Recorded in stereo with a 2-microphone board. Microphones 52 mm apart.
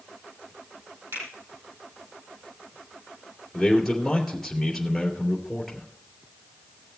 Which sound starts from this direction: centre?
A man speaking, at 3.5 s.